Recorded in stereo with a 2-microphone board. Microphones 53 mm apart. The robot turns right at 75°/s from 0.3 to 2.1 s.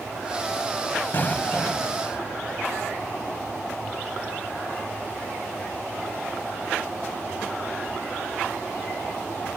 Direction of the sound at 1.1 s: 135° left.